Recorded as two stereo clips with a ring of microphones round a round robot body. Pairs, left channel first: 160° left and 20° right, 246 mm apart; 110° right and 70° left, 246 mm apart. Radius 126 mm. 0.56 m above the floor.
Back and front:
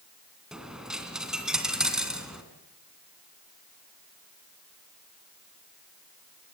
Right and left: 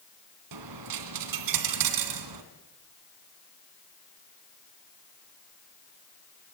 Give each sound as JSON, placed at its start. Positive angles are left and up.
{"t": 0.5, "sound": "a dropped coin", "azimuth_deg": 65, "distance_m": 2.5}